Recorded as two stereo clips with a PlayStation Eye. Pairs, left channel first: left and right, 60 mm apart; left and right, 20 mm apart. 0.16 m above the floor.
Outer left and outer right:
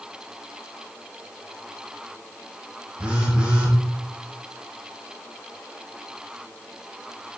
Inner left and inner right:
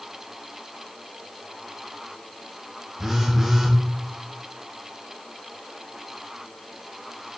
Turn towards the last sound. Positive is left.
turn(degrees=-15)  # may be behind; listen again after turning